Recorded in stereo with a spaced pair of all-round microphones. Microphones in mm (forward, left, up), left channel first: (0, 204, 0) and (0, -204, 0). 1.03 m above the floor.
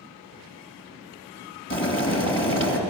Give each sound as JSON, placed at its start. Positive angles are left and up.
{"t": 1.7, "sound": "boiling", "side_deg": 30, "distance_m": 2.0}